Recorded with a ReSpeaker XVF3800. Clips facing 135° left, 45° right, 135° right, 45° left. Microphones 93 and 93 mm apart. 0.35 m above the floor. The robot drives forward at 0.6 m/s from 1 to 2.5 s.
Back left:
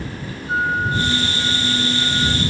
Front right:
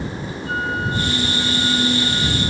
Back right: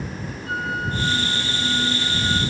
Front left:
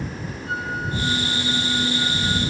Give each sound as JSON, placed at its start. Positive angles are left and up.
{"t": 0.5, "sound": "a flute", "azimuth_deg": -20, "distance_m": 9.0}